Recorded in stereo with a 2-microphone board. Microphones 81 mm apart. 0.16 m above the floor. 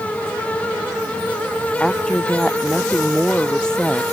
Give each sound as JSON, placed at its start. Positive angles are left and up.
{"t": 1.8, "sound": "a woman speaking", "side_deg": 10}